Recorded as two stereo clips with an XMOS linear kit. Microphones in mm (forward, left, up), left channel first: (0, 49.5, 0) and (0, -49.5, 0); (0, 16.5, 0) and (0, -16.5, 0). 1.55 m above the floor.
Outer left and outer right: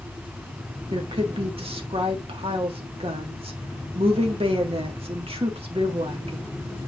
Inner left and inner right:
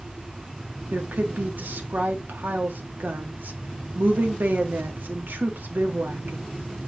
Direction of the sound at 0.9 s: 70° right (ahead or behind).